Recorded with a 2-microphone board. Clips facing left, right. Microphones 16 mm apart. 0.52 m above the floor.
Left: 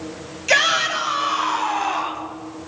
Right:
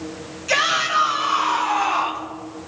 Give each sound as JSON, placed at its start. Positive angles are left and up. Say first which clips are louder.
{"t": 0.5, "sound": "a shout", "louder": "left 2 dB", "side_deg": 25, "distance_m": 3.0}